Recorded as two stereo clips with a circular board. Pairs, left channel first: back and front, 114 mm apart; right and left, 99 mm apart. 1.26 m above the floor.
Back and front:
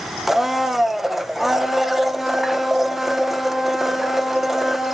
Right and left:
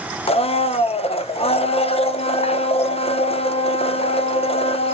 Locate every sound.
0.3 s a blender: 85° right, 0.7 m